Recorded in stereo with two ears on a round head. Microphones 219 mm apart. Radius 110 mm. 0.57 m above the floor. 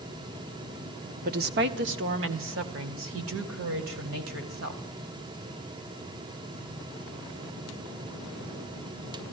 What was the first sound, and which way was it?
A woman speaking, 35° right (ahead or behind).